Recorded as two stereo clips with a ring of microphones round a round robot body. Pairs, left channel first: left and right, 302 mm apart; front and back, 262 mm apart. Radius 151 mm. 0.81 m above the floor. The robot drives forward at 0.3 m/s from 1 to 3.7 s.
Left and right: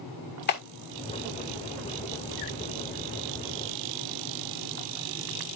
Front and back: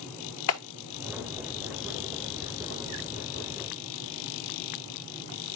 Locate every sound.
0.5 s a clap: 30° left, 1.7 m